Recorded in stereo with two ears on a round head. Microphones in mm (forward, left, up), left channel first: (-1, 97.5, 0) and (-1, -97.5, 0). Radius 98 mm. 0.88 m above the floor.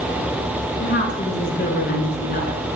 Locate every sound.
0.8 s a woman speaking: 40° left (ahead or behind), 9.5 m; by 2.6 s 45° left (ahead or behind), 10 m